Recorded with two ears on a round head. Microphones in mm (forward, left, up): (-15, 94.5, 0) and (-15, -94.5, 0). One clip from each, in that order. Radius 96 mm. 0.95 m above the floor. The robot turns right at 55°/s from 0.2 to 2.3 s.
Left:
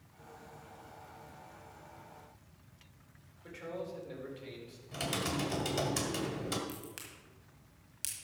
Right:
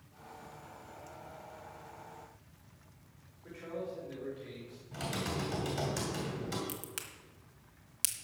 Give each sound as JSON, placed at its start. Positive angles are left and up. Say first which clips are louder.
{"t": 3.4, "sound": "a man speaking", "louder": "right 1 dB", "side_deg": 75, "distance_m": 4.0}
{"t": 4.9, "sound": "typing on a keyboard", "louder": "left 2 dB", "side_deg": 45, "distance_m": 2.0}
{"t": 6.7, "sound": "a crack", "louder": "right 2 dB", "side_deg": -20, "distance_m": 1.5}